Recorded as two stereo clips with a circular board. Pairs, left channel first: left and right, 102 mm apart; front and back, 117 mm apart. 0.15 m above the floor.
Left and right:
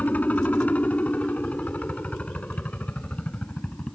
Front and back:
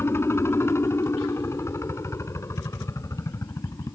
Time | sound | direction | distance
0.0 | a helicopter | 35° left | ?